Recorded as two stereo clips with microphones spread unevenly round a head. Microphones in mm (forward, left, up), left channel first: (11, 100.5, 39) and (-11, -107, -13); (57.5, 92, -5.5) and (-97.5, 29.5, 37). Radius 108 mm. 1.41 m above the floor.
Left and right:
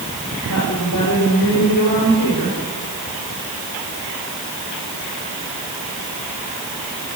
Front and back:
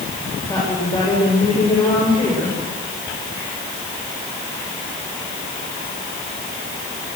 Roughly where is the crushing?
No crushing in this recording.